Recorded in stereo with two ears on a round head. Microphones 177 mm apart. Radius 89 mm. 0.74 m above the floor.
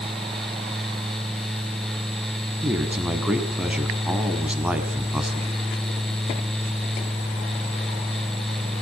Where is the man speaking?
5° right (ahead or behind), 5 m.